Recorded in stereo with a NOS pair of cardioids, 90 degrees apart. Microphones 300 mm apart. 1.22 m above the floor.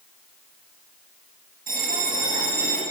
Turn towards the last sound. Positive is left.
turn(degrees=-30)